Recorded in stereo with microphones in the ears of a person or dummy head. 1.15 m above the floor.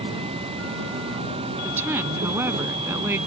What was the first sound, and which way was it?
An insect, 35° right (ahead or behind).